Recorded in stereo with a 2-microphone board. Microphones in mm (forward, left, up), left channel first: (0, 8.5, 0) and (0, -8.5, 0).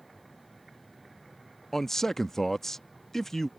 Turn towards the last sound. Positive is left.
turn(degrees=20)  # may be behind; listen again after turning